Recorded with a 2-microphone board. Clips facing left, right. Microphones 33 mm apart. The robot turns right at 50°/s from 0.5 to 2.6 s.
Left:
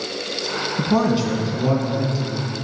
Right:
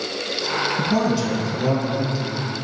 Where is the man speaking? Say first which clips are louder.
Left 5 dB; 120° left, 3 m; by 2.4 s 160° right, 3 m.